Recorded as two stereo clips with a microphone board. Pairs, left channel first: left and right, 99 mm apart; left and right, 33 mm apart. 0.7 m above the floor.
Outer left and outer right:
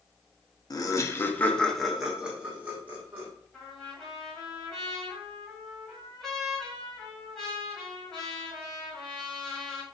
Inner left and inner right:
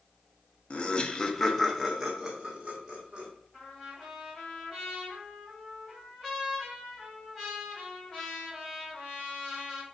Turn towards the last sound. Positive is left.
turn(degrees=5)  # may be behind; listen again after turning